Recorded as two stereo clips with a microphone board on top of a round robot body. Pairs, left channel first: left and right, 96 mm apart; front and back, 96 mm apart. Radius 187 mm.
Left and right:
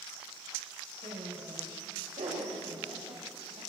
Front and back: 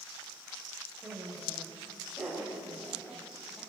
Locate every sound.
1.0 s laughter: 95° right, 4.5 m; by 3.6 s 85° right, 6 m